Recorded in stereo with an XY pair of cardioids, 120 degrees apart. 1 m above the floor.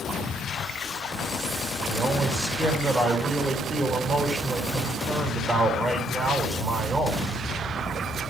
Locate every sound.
1.9 s a man speaking: 30° right, 4.5 m